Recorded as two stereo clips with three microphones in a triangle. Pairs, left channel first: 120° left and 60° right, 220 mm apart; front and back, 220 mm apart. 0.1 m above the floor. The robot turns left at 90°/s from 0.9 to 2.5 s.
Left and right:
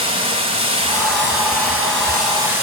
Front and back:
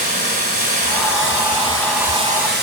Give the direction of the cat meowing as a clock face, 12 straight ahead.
No cat meowing in this recording.